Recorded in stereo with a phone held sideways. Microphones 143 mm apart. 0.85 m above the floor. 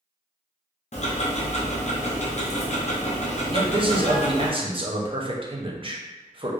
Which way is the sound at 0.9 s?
55° left (ahead or behind).